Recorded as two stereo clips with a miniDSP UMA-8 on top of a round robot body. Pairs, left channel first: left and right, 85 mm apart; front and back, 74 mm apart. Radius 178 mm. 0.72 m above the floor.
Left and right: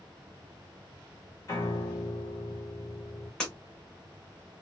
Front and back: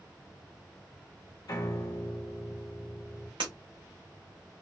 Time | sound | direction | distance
1.5 | a piano | 40° left | 0.9 m
3.4 | breaking glass | 170° left | 0.8 m